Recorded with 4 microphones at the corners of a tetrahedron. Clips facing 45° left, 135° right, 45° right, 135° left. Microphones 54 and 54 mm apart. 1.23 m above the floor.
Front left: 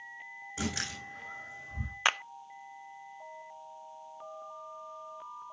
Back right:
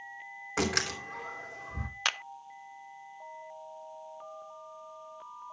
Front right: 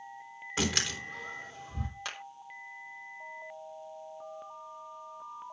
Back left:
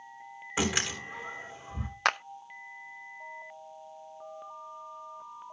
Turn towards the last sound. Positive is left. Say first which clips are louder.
# front left 4 dB, back left 16 dB
turn(degrees=115)